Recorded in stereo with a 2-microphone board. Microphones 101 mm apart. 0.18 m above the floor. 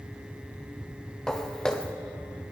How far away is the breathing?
I don't hear breathing.